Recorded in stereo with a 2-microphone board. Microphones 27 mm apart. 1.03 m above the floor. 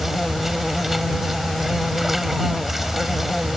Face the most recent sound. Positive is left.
turn(degrees=-10)  # may be behind; listen again after turning